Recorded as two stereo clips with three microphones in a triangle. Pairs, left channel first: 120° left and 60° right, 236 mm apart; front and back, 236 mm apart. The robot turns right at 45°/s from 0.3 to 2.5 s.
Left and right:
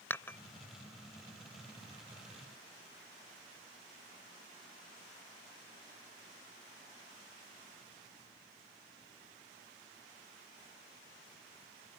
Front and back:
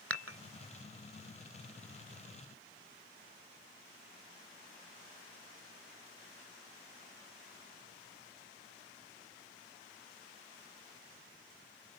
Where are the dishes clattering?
160° right; by 0.4 s 155° right.